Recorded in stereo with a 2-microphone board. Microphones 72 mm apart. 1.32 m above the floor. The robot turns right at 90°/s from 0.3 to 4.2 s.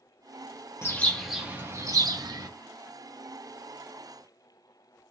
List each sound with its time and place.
0.8 s a bird: 140° left, 0.7 m; by 2.5 s 70° right, 0.7 m